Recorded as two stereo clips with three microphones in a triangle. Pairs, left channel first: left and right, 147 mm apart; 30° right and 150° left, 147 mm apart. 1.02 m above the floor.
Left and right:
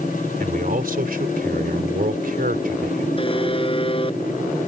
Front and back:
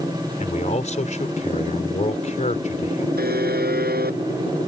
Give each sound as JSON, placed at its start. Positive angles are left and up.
{"t": 0.4, "sound": "a man speaking", "azimuth_deg": -70}
{"t": 3.2, "sound": "a buzzer", "azimuth_deg": 145}